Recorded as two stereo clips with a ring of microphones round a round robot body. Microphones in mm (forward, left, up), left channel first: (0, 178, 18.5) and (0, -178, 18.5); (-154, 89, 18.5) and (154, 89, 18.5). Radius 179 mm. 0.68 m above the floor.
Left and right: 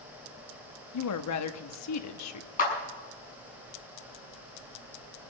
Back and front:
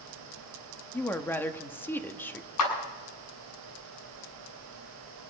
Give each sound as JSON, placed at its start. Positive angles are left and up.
{"t": 0.9, "sound": "a woman speaking", "azimuth_deg": 100, "distance_m": 1.1}
{"t": 2.6, "sound": "a clap", "azimuth_deg": 160, "distance_m": 6.5}